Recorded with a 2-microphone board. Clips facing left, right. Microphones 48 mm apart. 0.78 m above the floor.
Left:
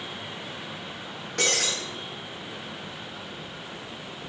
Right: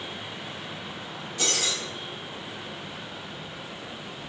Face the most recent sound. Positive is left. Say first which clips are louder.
# left 3 dB
turn(degrees=65)  # may be behind; listen again after turning